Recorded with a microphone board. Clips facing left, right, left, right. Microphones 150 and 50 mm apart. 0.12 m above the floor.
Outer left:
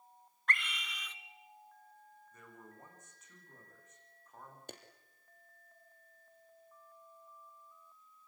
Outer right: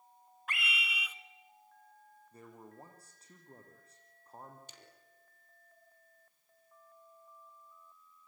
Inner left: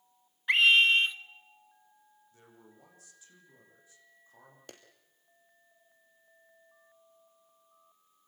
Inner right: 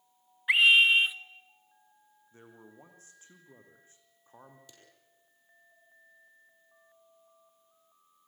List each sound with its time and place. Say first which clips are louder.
0.5 s a scream: even, inner right 1 dB; 10° right (ahead or behind), 1.1 m
2.3 s a man speaking: outer right 5 dB, inner right 5 dB; 35° right (ahead or behind), 5.5 m
4.7 s a clap: outer left 10 dB, inner left 8 dB; 60° left (ahead or behind), 3 m